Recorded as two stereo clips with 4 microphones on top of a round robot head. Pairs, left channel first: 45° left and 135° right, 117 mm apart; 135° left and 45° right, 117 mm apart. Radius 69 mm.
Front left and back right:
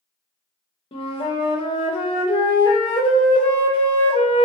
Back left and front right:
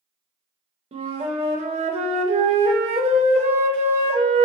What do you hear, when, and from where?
0.9 s a flute: 5° right, 0.5 m